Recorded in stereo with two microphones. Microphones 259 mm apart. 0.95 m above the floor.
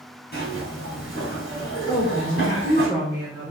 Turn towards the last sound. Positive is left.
turn(degrees=15)  # may be behind; listen again after turning